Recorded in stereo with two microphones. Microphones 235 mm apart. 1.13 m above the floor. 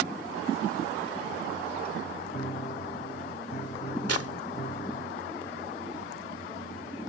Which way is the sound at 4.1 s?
85° left.